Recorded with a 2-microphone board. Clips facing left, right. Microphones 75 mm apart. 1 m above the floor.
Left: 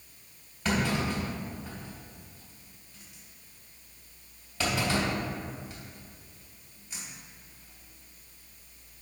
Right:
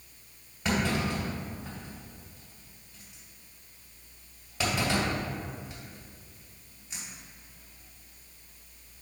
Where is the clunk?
15° right (ahead or behind), 2.5 m.